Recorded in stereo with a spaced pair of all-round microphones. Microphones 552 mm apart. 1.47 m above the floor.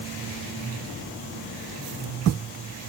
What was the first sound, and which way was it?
Only background noise.